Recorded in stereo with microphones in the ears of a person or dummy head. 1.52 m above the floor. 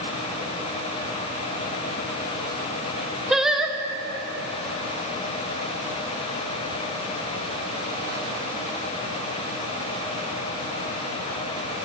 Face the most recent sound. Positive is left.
turn(degrees=0)  # may be behind; listen again after turning